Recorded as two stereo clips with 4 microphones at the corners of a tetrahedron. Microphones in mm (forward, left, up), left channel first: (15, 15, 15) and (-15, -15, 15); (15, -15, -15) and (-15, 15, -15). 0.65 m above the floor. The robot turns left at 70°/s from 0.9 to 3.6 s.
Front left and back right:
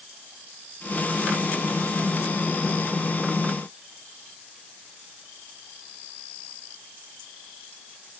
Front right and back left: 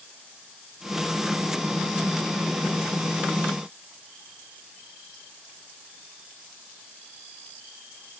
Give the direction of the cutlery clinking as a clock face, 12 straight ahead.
I don't hear cutlery clinking.